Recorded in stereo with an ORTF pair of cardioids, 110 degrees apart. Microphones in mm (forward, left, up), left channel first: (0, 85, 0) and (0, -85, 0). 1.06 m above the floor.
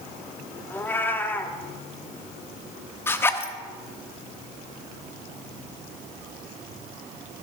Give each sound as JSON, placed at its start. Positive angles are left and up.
{"t": 0.7, "sound": "a cat meowing", "azimuth_deg": 10, "distance_m": 1.1}
{"t": 3.1, "sound": "a zipper", "azimuth_deg": 15, "distance_m": 1.0}